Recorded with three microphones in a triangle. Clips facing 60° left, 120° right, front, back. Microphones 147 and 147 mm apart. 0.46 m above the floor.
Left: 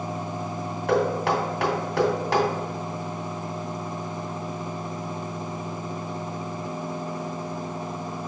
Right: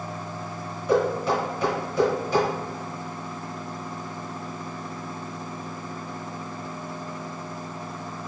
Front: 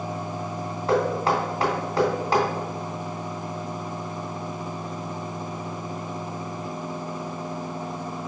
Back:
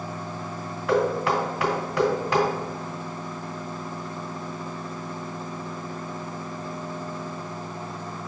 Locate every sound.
0.9 s knocking: 60° left, 2.5 m